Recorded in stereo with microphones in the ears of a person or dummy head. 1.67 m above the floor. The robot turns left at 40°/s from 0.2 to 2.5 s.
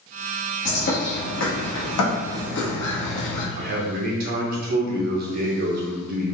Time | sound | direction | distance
0.7 | a bird | 135° left | 1.1 m
3.6 | a man speaking | 55° right (ahead or behind) | 1.0 m